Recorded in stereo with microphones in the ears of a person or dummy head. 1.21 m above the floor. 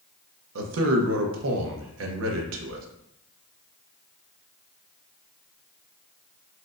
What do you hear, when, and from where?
0.6 s a man speaking: 85° right, 0.7 m